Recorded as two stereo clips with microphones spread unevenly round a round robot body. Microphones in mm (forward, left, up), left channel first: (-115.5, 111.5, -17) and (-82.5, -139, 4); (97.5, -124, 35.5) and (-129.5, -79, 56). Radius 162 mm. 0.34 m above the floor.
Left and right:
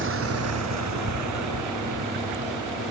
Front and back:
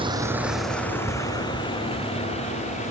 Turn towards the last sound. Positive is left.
turn(degrees=-70)